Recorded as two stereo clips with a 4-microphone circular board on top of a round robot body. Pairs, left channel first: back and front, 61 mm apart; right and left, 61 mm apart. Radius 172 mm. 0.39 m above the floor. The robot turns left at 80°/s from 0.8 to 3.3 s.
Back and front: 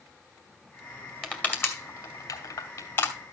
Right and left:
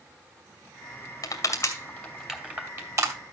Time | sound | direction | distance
1.2 | crushing | 95° right | 2.5 m